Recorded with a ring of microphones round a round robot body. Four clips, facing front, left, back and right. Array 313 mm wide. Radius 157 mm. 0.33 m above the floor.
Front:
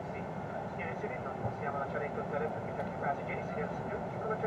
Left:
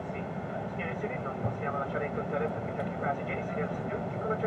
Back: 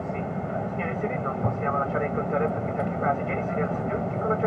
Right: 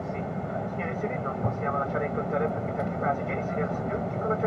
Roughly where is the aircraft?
Behind.